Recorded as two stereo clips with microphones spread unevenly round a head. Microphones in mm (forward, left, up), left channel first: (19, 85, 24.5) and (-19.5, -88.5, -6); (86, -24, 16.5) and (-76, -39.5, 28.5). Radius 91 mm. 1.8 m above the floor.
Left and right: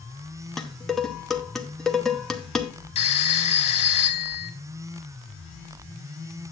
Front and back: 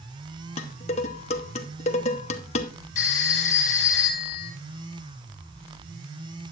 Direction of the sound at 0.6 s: 10° left.